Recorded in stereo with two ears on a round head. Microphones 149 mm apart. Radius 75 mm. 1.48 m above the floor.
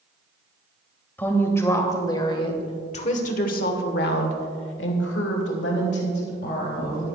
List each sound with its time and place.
1.2 s a woman speaking: 10° left (ahead or behind), 1.9 m; by 7.2 s 60° left (ahead or behind), 2.5 m